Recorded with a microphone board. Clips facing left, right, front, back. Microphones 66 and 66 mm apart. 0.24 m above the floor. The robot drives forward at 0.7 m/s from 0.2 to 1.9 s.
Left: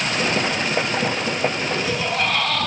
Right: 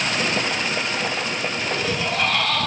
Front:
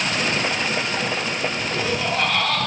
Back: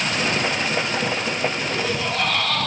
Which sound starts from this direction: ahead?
Laughter, at 1.7 s.